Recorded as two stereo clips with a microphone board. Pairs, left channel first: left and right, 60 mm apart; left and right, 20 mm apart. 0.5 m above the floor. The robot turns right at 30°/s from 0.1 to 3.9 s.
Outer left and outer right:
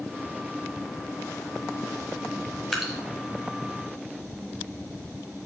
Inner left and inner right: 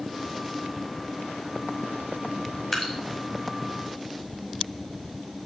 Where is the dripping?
Centre (ahead or behind), 1.7 m; by 2.9 s 5° right (ahead or behind), 1.7 m.